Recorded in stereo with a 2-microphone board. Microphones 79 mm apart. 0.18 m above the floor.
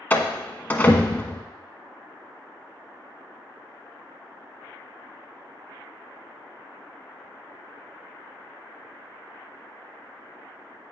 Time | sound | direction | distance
0.1 | a door slam | 20° left (ahead or behind) | 0.9 m